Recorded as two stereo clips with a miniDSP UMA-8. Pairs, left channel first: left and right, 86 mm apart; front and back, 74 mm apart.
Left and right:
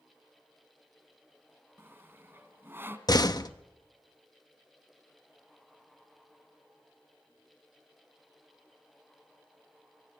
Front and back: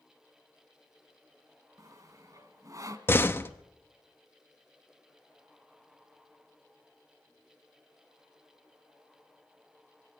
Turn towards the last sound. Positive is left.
turn(degrees=55)